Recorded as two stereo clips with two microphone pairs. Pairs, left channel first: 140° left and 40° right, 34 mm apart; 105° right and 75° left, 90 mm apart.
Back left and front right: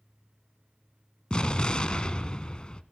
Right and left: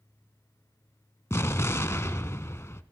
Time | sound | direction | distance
1.3 | an explosion | 165° right | 0.6 m